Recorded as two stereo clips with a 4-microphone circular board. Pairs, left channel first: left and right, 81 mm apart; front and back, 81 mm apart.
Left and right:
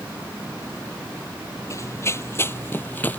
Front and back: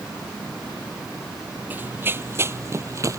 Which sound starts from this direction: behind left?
Running footsteps, at 1.7 s.